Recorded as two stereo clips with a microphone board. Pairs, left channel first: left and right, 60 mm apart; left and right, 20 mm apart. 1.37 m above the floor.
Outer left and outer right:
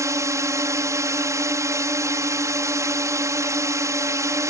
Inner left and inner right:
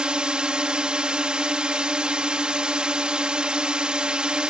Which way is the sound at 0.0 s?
55° right (ahead or behind).